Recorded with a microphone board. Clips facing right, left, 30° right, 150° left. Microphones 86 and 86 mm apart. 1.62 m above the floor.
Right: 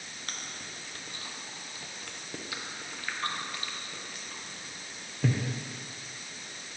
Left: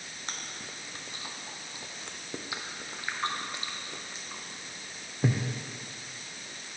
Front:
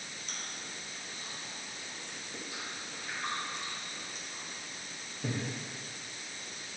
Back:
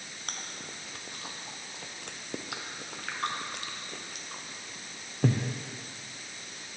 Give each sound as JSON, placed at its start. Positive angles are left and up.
{"t": 0.3, "sound": "chewing", "azimuth_deg": 155, "distance_m": 0.5}